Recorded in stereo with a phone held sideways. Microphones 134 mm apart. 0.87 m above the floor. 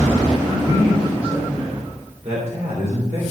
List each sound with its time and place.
0.5 s a man speaking: 40° right (ahead or behind), 3.5 m; by 3.2 s 70° right (ahead or behind), 3 m